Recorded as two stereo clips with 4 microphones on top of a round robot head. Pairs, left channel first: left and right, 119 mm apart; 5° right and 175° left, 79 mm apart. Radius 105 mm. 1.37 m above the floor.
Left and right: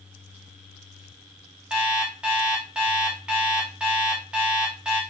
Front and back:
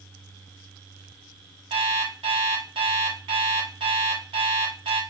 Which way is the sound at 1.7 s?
170° right.